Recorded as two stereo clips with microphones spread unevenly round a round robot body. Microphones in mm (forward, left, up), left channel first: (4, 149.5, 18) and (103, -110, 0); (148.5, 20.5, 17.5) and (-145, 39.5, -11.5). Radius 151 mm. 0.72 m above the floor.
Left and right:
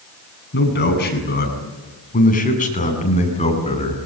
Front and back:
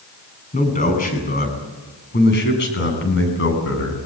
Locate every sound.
0.5 s a man speaking: 60° left, 8 m; by 4.0 s 40° left, 7.5 m